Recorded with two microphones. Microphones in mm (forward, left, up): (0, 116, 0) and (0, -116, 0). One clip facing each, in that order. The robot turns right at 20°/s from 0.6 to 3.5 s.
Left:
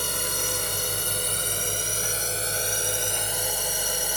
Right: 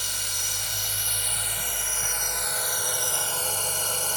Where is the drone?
110° left; by 4.2 s 165° left.